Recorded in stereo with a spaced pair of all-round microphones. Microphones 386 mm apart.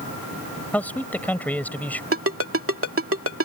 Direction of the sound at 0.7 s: 5° left (ahead or behind).